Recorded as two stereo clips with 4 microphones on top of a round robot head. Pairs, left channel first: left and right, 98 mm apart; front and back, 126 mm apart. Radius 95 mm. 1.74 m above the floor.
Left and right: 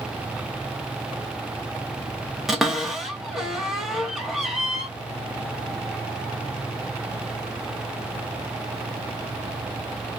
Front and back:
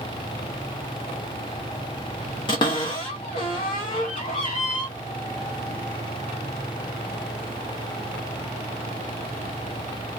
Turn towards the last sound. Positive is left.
turn(degrees=-5)